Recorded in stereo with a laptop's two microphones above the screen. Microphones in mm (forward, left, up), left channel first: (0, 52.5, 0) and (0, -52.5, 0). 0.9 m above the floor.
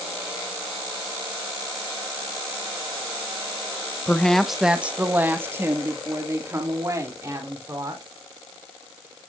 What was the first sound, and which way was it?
A woman speaking, 15° left (ahead or behind).